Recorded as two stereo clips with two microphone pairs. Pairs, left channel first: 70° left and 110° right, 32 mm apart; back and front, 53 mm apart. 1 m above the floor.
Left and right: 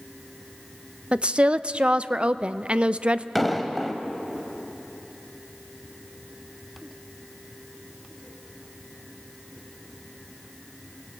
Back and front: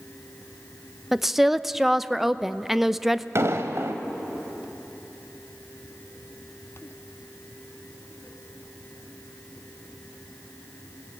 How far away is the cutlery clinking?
I don't hear cutlery clinking.